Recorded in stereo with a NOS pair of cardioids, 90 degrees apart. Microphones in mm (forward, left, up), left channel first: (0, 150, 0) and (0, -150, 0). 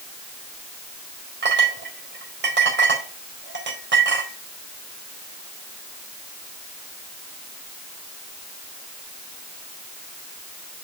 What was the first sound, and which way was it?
A clink, 35° right.